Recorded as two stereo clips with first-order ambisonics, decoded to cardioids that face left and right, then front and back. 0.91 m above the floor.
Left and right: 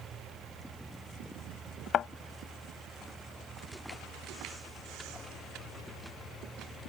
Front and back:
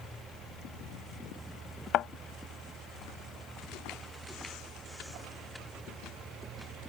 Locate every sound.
1.9 s a thud: 40° left